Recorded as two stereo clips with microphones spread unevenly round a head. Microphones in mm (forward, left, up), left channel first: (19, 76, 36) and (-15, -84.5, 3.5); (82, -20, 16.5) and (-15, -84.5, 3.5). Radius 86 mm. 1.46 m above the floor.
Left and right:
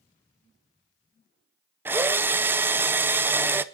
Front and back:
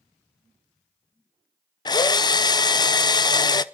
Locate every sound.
1.9 s a drill: 25° right, 0.6 m